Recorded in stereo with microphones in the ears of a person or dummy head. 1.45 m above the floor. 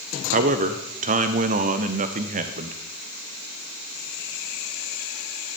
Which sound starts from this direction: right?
A man speaking, at 0.3 s.